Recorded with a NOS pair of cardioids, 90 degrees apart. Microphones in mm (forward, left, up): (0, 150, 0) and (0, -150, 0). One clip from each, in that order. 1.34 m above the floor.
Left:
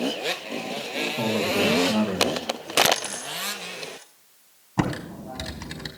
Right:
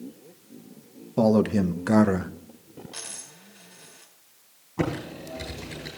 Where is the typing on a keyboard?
70° left, 3.5 m.